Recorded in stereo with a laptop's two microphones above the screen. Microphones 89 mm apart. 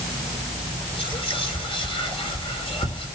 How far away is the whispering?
About 3.5 m.